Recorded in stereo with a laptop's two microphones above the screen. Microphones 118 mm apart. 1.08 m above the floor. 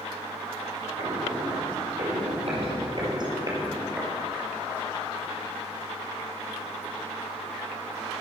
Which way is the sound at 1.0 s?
70° right (ahead or behind).